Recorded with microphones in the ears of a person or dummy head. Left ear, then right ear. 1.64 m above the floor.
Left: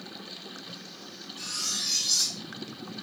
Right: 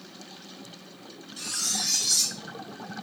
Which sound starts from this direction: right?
Cutlery clinking, at 1.4 s.